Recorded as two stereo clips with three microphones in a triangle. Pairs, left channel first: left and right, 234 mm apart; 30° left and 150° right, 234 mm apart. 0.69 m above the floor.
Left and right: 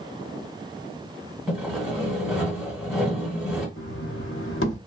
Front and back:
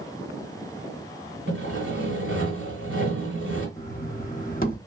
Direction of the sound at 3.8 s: 75° left.